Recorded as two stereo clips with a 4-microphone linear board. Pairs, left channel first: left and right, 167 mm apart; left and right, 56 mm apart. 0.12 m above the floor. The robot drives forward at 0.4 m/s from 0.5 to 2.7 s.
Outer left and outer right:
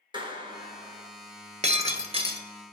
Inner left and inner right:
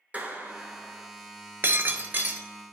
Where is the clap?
30° right (ahead or behind), 1.1 m.